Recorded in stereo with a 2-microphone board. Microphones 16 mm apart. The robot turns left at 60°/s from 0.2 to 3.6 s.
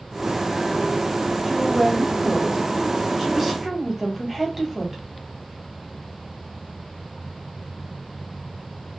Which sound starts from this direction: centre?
A woman speaking, at 1.5 s.